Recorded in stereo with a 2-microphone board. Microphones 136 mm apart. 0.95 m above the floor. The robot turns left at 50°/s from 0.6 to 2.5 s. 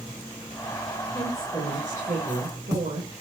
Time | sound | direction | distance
1.1 | a woman speaking | 30° right | 4 m